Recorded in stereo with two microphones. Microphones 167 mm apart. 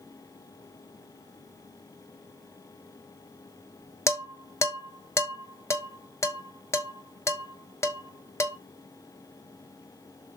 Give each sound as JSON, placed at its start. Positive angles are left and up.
{"t": 4.1, "sound": "dishes clattering", "side_deg": 15, "distance_m": 1.2}